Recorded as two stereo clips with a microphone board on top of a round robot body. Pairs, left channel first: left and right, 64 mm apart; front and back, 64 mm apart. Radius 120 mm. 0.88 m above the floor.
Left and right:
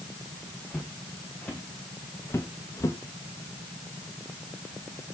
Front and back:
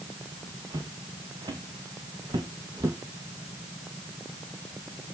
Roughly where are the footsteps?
Behind.